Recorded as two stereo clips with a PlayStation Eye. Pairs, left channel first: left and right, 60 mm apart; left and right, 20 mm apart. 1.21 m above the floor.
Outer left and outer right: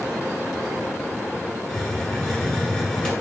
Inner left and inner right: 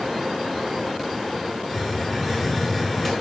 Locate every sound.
1.7 s a hiss: 5° left (ahead or behind), 1.2 m